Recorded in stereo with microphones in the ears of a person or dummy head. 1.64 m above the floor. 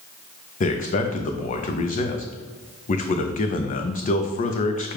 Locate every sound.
0.6 s a man speaking: 40° left (ahead or behind), 0.5 m